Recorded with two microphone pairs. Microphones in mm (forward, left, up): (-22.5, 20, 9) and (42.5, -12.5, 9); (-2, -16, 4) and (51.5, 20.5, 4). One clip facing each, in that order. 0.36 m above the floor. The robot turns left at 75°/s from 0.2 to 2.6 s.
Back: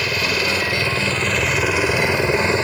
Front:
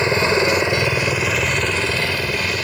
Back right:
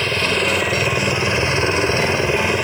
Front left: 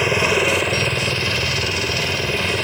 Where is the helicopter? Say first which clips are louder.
Front 5 dB, front left 2 dB; 25° right; by 2.7 s 155° left.